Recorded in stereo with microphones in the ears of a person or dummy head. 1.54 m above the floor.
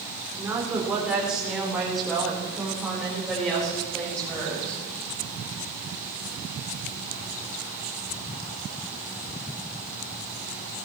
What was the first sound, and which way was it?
A woman speaking, 10° right (ahead or behind).